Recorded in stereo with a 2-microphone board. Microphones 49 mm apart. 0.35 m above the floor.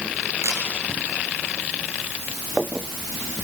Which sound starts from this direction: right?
A camera shutter, at 0.4 s.